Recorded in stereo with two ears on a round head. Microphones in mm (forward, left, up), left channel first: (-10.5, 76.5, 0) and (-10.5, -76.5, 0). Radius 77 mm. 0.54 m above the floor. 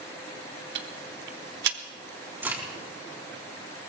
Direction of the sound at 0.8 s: 70° right (ahead or behind).